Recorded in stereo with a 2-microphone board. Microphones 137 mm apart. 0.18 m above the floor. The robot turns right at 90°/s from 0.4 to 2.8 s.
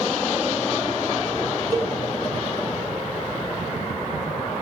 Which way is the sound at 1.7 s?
25° right (ahead or behind).